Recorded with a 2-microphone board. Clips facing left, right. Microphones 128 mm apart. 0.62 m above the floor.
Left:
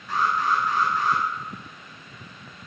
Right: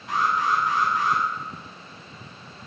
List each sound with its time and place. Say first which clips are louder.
0.1 s an alarm: even; 80° right, 6.5 m